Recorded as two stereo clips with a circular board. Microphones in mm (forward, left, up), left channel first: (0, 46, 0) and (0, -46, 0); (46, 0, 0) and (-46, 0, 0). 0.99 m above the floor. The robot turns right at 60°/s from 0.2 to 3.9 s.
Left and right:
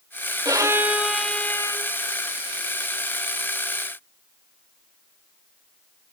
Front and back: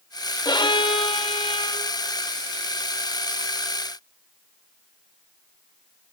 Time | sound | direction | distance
0.5 | a violin | 45° right | 1.2 m